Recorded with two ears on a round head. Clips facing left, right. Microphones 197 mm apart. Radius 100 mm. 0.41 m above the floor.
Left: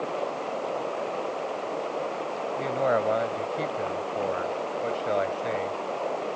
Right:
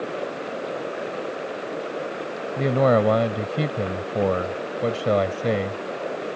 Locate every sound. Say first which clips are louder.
0.0 s running water: right 1 dB; 20° right (ahead or behind)
2.6 s a man speaking: right 7 dB; 60° right (ahead or behind)